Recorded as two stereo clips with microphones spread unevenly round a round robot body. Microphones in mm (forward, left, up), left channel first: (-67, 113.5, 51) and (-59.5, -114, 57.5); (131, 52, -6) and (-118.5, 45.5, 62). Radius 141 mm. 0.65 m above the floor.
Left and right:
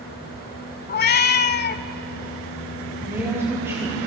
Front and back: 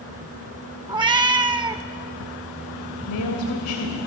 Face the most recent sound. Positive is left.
turn(degrees=-10)